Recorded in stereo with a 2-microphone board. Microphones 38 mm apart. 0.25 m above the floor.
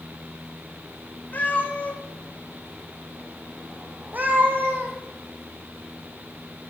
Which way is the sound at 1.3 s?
45° left (ahead or behind).